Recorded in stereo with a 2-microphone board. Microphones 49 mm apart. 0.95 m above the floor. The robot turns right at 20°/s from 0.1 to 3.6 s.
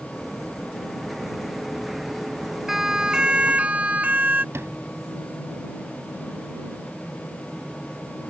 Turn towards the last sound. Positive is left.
turn(degrees=-65)  # may be behind; listen again after turning